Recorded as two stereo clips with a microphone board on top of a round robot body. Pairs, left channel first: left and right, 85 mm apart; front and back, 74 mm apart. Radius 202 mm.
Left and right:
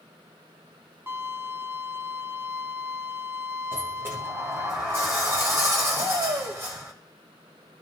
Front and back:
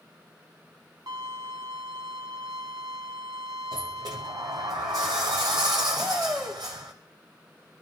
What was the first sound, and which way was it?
A violin, 155° right.